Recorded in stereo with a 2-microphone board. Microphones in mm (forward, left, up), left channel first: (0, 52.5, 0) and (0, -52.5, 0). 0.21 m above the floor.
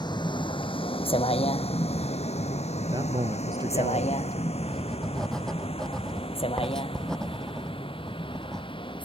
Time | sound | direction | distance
0.0 | a vehicle | 45° left (ahead or behind) | ?
2.8 | a man speaking | 40° right (ahead or behind) | ?
4.6 | writing | 5° left (ahead or behind) | ?